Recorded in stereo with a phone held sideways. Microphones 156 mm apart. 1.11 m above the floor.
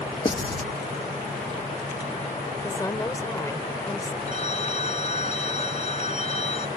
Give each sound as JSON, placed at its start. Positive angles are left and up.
{"t": 0.2, "sound": "writing", "side_deg": 30}
{"t": 2.6, "sound": "a woman speaking", "side_deg": 20}
{"t": 4.3, "sound": "a phone ringing", "side_deg": 45}